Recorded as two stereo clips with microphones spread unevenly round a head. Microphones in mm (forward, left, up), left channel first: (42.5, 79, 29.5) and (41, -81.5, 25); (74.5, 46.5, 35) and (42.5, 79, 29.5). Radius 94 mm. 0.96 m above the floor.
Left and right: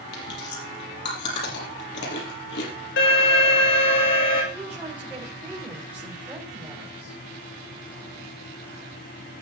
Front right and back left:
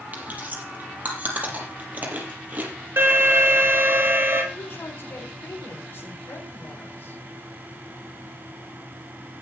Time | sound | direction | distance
0.1 | chewing | 80° left | 5.5 m
3.0 | an alarm | 105° left | 4.5 m
4.5 | a woman speaking | 10° right | 5 m